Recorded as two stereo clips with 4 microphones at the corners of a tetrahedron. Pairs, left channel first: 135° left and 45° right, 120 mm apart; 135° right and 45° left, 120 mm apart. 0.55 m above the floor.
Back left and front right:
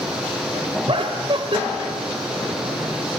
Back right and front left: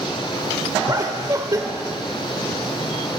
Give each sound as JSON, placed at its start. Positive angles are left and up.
{"t": 0.9, "sound": "laughter", "azimuth_deg": -10, "distance_m": 1.6}